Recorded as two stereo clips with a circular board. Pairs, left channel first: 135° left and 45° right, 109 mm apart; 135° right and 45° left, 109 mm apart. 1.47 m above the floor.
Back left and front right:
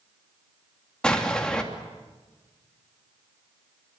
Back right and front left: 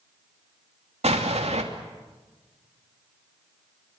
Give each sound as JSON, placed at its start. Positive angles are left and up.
{"t": 1.0, "sound": "an explosion", "azimuth_deg": 50, "distance_m": 2.5}